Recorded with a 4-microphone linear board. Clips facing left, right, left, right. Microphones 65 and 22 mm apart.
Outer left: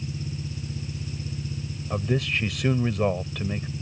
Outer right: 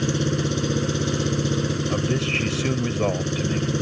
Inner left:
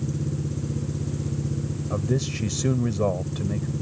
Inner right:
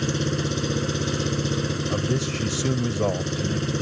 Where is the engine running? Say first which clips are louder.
Outer right 12 dB, inner right 5 dB; 85° right.